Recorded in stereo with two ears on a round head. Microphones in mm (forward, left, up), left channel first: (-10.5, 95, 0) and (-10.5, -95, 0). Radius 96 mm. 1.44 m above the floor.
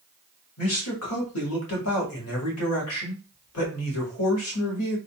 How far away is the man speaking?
About 1.6 m.